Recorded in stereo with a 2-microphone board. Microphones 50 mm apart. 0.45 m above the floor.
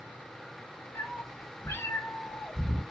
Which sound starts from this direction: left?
A cat meowing, at 0.9 s.